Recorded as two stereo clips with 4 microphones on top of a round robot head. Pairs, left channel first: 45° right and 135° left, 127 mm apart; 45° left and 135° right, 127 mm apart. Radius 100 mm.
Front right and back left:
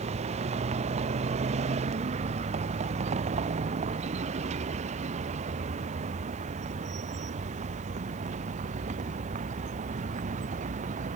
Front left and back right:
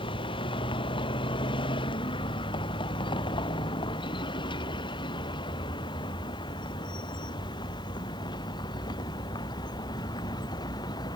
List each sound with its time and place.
0.0 s a vehicle: 95° left; by 11.2 s 105° left